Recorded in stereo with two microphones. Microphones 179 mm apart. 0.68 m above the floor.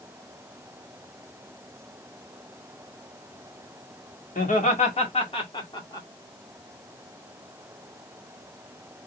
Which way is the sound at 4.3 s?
50° left (ahead or behind).